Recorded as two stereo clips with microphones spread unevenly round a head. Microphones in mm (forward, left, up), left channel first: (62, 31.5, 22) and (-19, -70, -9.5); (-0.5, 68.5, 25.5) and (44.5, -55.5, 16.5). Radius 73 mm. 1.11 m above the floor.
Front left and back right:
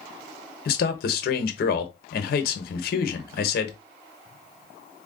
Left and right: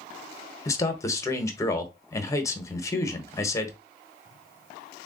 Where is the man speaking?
45° left, 0.9 m.